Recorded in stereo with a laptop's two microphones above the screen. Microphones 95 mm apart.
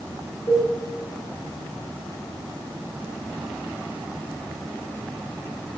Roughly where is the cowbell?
Left.